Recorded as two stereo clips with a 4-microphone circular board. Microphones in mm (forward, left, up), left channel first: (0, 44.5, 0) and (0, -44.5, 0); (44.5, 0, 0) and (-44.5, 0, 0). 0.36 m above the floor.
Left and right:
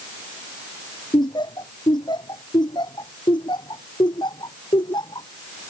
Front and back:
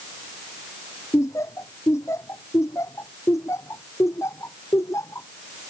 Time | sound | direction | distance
1.1 | laughter | 55° left | ?